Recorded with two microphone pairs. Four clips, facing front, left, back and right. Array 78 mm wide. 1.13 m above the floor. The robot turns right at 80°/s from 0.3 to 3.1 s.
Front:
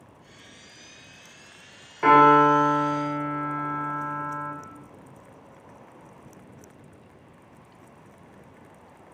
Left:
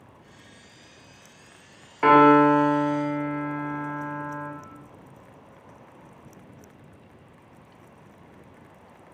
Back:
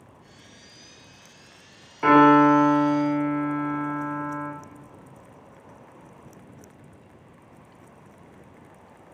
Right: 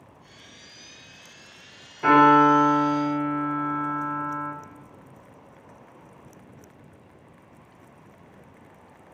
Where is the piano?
75° left, 0.8 m; by 4.5 s 160° left, 0.8 m.